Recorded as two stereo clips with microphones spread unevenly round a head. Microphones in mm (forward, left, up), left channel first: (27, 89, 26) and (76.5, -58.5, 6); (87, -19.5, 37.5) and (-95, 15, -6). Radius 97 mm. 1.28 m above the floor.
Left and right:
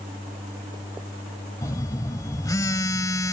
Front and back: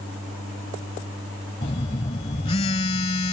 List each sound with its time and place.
1.6 s a phone buzzing: 45° left